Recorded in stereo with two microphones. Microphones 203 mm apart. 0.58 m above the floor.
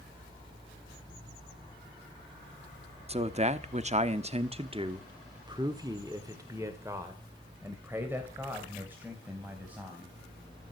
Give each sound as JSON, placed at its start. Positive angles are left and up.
{"t": 3.1, "sound": "a man speaking", "side_deg": -30, "distance_m": 0.9}